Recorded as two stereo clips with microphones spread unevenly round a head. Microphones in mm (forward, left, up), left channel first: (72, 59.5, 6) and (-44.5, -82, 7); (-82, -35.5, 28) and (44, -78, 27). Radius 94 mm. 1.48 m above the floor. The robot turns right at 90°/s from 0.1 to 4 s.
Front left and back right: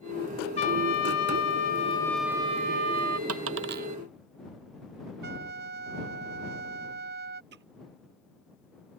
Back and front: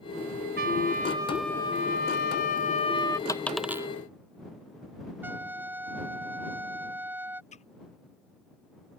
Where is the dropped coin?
135° right; by 3.9 s 80° right.